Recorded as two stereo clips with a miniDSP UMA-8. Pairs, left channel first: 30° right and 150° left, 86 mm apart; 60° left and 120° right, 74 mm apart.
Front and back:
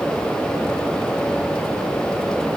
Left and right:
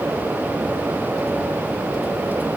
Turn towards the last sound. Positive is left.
No sound to turn to.